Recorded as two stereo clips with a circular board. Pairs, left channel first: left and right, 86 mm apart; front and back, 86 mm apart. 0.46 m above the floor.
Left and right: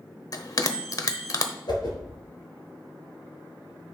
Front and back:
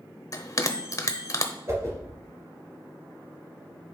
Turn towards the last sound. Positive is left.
turn(degrees=125)